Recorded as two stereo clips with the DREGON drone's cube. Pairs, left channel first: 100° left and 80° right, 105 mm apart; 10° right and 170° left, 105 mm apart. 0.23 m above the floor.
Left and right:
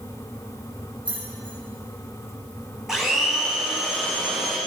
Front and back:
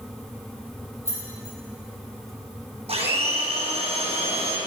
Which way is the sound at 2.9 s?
165° right.